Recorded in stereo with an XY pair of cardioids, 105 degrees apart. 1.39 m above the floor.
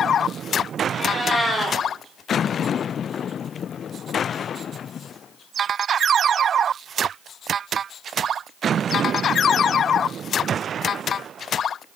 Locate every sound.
0.9 s a cat meowing: 5° left, 2 m